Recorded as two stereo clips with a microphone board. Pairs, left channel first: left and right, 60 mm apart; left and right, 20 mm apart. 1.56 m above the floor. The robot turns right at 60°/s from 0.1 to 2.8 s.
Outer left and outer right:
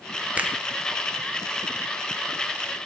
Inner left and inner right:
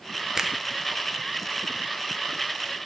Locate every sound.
0.4 s a finger snap: 20° right (ahead or behind), 0.5 m